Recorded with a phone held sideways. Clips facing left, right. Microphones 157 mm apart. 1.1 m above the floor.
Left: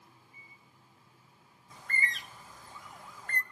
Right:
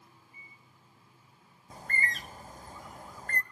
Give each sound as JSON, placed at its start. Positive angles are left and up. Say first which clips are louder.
{"t": 0.3, "sound": "a microwave", "louder": "right 1 dB", "side_deg": 25, "distance_m": 3.0}
{"t": 1.7, "sound": "a bird", "louder": "right 2 dB", "side_deg": -40, "distance_m": 0.8}